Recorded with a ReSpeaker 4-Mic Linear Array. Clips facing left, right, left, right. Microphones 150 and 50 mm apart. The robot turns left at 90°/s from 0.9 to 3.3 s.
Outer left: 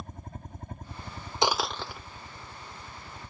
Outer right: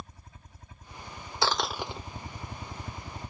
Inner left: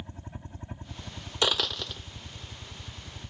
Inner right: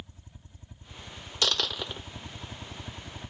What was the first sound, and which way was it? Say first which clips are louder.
A helicopter: outer left 6 dB, inner left 7 dB; 65° left.